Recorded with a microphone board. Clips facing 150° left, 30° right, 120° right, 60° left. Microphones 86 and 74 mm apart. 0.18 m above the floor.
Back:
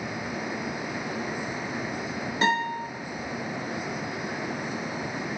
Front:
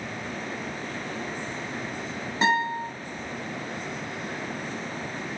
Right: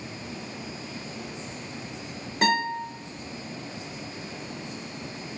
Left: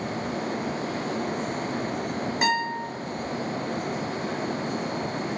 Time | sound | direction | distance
2.4 | a guitar | 5° left | 1.2 m